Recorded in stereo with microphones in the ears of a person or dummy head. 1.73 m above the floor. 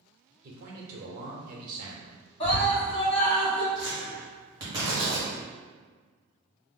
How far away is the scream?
About 1.5 m.